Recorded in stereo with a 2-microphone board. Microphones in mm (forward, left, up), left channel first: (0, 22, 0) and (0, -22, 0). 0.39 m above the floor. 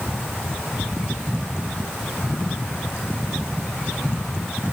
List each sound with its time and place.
Only background noise.